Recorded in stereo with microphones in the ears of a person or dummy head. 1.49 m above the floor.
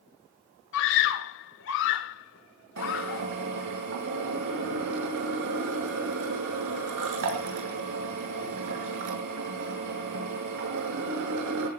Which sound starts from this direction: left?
A scream, at 0.7 s.